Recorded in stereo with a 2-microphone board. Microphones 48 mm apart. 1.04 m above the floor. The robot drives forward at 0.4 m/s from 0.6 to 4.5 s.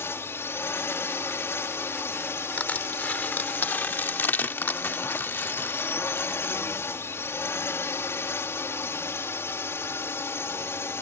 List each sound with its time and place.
0.0 s a drone: 60° left (ahead or behind); by 11.0 s 65° left (ahead or behind)
2.6 s crushing: 35° left (ahead or behind); by 6.5 s 50° left (ahead or behind)